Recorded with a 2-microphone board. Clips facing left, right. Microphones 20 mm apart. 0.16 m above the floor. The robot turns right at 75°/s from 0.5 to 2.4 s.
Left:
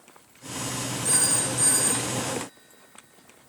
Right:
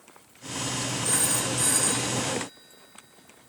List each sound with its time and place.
1.1 s a phone ringing: 45° left (ahead or behind), 6 m; by 3.5 s 55° right (ahead or behind), 6 m